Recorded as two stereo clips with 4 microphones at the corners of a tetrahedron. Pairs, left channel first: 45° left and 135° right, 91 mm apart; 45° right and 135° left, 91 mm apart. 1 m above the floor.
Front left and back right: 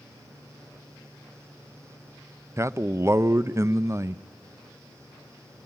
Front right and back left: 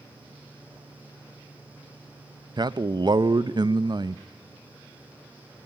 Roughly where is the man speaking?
Behind.